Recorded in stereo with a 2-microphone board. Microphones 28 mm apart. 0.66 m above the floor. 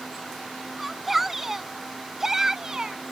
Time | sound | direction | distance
0.8 | a shout | 5° right (ahead or behind) | ?